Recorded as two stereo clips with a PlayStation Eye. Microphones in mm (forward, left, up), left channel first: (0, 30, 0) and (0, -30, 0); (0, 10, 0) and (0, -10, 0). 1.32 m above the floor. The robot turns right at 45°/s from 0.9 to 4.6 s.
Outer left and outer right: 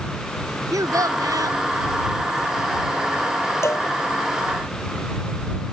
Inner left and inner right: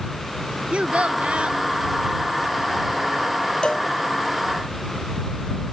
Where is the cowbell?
45° left (ahead or behind); by 3.9 s 35° left (ahead or behind).